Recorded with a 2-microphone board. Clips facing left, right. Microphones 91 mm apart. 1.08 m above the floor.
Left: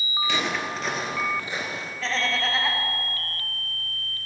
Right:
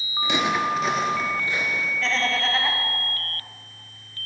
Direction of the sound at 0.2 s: 20° right (ahead or behind).